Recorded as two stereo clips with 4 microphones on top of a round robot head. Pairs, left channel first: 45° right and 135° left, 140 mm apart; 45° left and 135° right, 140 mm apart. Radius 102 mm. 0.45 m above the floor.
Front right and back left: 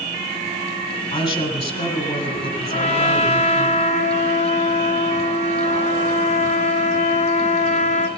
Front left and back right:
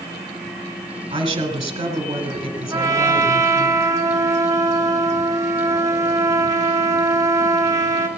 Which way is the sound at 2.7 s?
70° right.